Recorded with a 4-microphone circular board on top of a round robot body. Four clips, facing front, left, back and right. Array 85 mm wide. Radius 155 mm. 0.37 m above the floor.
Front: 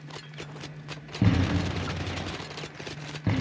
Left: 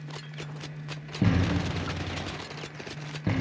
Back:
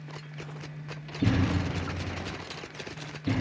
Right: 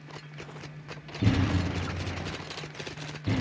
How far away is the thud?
About 2.0 m.